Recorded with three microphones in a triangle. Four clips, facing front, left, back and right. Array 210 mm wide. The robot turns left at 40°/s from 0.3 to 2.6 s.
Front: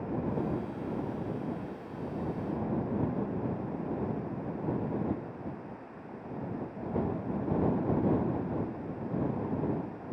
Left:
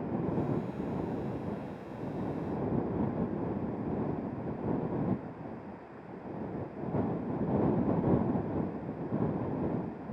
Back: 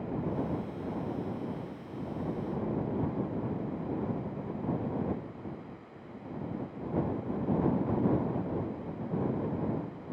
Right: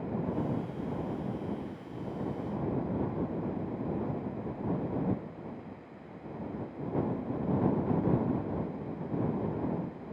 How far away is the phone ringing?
No phone ringing in this recording.